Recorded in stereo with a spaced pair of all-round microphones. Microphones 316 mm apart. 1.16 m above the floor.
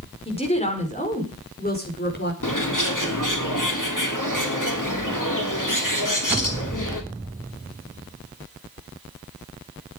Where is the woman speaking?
20° left (ahead or behind), 4.5 m; by 2.3 s 35° left (ahead or behind), 4.5 m.